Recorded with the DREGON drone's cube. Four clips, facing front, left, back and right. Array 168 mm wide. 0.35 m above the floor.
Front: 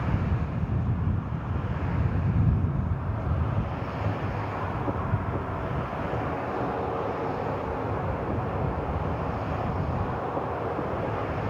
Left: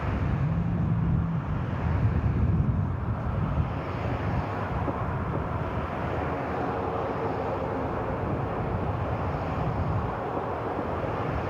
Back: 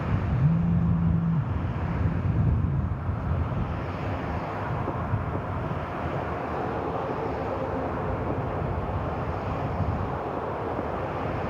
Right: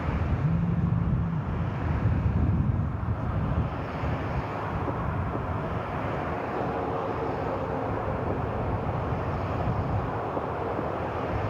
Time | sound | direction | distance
0.4 | a phone buzzing | 170° right | ?